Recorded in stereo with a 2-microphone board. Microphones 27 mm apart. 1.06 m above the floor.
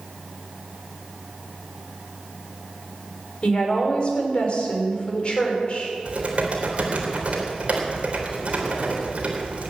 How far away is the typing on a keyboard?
About 3 m.